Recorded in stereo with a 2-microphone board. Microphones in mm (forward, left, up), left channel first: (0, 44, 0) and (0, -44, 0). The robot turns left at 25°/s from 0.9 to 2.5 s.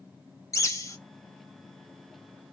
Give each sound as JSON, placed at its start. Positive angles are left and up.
{"t": 0.5, "sound": "a bird", "side_deg": 35, "distance_m": 0.7}